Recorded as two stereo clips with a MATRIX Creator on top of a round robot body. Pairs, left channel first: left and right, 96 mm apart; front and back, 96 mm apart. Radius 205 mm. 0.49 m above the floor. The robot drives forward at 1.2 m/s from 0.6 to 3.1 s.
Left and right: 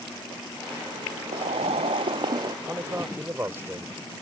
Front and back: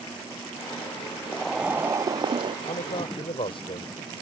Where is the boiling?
80° right; by 2.5 s 140° right.